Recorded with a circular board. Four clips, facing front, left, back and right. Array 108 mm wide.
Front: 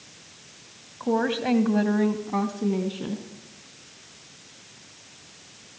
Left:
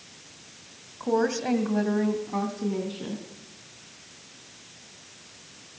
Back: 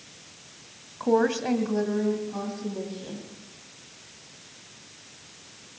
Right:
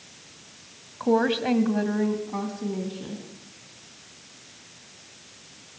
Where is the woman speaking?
120° right, 1.6 m; by 3.2 s 15° left, 3 m.